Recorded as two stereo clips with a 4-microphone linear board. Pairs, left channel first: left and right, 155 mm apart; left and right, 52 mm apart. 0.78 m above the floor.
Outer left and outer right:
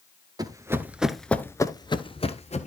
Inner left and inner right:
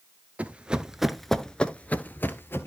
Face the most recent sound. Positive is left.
turn(degrees=50)  # may be behind; listen again after turning